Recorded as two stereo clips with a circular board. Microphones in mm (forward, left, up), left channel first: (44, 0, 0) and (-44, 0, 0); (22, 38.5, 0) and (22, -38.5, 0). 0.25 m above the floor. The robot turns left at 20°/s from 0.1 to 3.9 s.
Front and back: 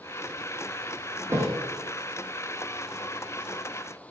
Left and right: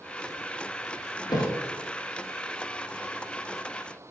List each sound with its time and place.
1.3 s a thud: 120° left, 2 m; by 1.6 s 115° left, 2 m